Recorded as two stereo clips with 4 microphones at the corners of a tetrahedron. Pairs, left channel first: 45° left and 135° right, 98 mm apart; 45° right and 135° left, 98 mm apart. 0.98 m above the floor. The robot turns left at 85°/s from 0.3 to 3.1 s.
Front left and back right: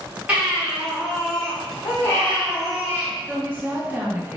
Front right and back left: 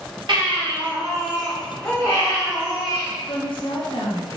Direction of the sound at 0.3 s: 155° left.